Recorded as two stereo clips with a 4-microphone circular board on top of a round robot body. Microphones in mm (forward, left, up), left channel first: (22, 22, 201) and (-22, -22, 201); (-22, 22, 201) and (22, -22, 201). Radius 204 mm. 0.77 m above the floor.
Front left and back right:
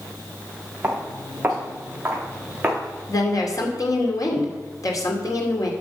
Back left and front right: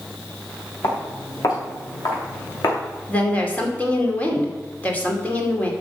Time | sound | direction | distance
0.8 | footsteps | 160° left | 6 m
3.1 | a woman speaking | 70° left | 2.5 m